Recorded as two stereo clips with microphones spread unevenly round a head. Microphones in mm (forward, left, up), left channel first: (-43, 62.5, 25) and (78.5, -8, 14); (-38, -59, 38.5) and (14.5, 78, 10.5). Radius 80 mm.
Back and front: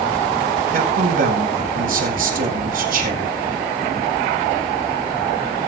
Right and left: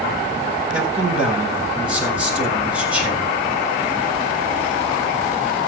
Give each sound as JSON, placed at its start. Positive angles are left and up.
{"t": 0.7, "sound": "a man speaking", "azimuth_deg": -15, "distance_m": 4.0}